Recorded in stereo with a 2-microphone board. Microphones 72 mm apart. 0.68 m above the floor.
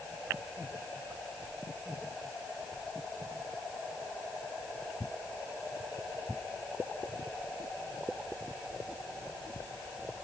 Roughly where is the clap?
I don't hear a clap.